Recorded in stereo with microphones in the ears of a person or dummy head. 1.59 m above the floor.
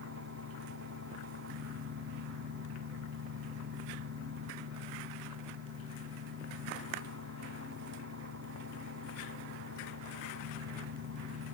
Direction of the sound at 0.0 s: 70° right (ahead or behind).